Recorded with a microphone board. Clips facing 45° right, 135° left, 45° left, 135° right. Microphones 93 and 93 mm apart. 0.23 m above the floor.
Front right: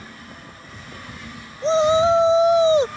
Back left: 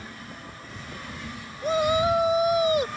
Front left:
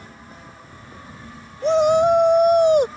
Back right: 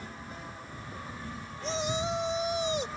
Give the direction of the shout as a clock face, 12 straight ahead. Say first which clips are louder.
Front right 6 dB, front left 17 dB; 11 o'clock.